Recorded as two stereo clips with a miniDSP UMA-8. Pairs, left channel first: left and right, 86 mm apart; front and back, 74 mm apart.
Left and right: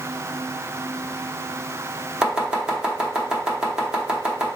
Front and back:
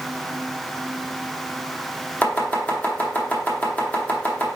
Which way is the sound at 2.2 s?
30° right.